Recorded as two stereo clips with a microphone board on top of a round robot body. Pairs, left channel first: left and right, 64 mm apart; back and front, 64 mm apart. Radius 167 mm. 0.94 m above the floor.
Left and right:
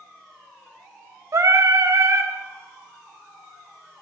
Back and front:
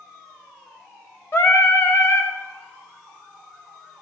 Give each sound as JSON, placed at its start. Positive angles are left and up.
{"t": 1.3, "sound": "singing", "azimuth_deg": -130, "distance_m": 1.4}